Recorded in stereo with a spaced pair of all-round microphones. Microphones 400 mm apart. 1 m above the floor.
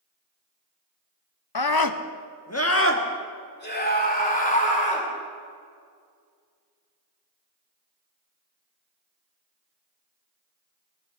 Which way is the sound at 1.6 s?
75° left (ahead or behind).